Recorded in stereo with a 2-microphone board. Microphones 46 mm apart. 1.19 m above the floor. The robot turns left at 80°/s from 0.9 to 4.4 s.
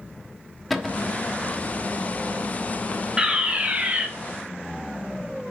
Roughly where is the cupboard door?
Centre.